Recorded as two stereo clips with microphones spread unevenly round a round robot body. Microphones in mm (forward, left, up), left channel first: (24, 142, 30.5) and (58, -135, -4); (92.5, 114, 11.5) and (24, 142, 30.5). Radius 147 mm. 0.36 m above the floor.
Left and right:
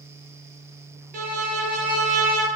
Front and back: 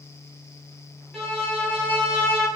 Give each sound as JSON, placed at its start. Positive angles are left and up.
{"t": 1.1, "sound": "a violin", "azimuth_deg": -75, "distance_m": 0.7}